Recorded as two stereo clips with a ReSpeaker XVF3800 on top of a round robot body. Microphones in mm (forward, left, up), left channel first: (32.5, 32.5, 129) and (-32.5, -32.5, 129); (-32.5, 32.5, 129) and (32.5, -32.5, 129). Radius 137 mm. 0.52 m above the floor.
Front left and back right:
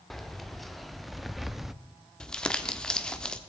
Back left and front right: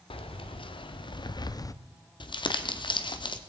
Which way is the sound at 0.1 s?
135° left.